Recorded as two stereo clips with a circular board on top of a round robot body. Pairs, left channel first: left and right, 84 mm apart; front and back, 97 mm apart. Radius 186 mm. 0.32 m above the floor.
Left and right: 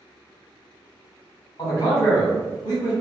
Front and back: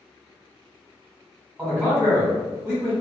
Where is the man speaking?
100° left, 1.8 m.